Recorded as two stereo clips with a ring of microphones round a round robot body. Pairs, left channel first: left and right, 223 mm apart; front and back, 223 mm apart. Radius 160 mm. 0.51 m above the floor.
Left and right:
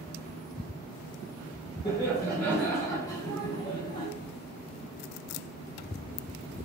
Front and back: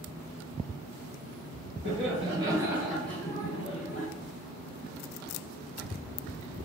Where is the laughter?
175° right, 1.0 m; by 4.1 s 35° left, 1.0 m.